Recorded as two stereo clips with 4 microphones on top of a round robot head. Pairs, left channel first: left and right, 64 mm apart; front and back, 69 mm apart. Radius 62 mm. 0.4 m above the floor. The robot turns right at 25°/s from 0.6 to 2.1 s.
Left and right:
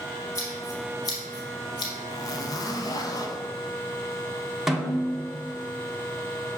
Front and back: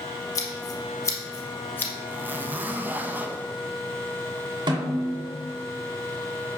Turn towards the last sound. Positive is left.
turn(degrees=-175)